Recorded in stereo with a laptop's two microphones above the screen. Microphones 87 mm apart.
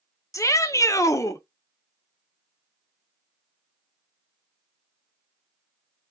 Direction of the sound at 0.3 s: 40° left (ahead or behind).